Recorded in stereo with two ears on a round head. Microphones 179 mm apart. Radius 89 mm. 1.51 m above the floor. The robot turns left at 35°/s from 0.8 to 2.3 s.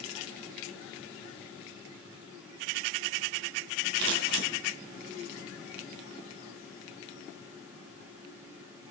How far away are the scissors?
About 2.5 m.